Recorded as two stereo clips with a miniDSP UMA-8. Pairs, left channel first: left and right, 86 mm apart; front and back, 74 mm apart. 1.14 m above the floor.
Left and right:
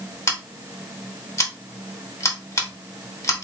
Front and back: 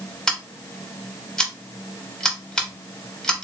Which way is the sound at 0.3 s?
75° left.